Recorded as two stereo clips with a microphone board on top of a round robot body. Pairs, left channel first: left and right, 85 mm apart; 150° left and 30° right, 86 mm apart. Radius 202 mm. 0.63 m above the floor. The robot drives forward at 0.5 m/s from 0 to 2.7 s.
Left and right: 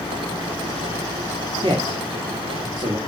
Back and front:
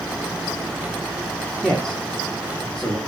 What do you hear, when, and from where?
1.6 s a man speaking: 115° right, 2.5 m; by 3.0 s 125° right, 3 m